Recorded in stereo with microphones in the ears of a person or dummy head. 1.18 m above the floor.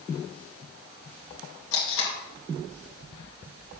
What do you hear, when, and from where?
1.7 s tape being pulled: 75° left (ahead or behind), 2 m